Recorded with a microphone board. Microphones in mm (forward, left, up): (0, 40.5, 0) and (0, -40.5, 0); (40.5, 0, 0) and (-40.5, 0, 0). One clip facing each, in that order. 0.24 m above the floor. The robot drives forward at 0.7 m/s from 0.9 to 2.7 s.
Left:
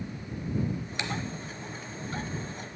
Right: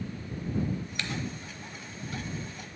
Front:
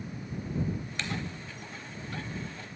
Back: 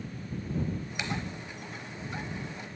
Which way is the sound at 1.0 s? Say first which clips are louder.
Left 2 dB, back 3 dB; 120° left.